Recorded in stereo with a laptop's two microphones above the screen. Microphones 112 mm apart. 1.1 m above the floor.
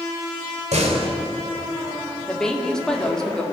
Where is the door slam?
85° right, 3.5 m.